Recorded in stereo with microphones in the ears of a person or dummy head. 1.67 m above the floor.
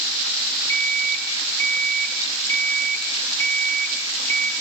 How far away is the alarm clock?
About 1.6 m.